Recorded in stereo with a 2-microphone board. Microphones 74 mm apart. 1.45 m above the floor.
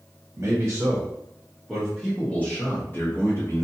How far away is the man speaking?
About 1.2 m.